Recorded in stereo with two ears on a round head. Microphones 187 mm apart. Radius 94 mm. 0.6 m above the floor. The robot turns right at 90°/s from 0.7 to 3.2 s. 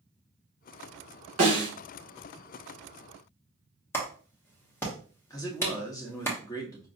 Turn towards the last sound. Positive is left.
turn(degrees=15)  # may be behind; listen again after turning